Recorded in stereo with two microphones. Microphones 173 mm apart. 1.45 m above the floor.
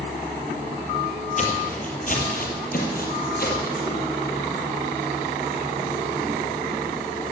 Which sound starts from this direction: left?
Footsteps, at 1.4 s.